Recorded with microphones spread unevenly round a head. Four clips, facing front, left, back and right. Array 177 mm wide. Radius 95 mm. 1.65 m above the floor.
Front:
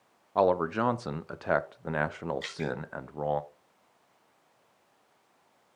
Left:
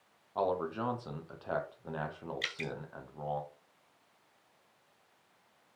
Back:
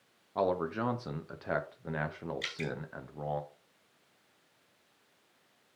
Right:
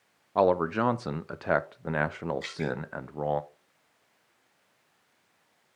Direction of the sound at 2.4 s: 100° left.